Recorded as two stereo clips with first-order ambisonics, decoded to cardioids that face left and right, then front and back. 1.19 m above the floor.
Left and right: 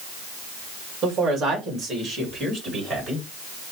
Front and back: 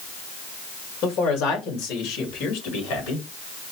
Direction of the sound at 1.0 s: 30° right.